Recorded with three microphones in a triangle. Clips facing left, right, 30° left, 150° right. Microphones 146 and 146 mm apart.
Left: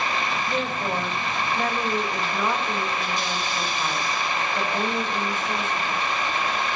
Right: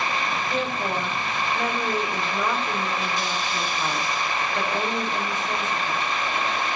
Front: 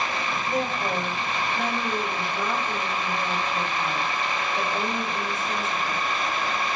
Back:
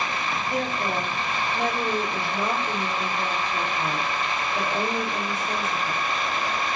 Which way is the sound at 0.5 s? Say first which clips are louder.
Even, front 1 dB; 165° right.